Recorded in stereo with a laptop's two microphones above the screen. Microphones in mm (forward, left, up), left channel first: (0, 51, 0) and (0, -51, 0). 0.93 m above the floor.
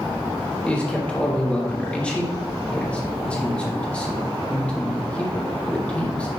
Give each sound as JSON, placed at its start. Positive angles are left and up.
{"t": 0.7, "sound": "a man speaking", "side_deg": 10, "distance_m": 1.3}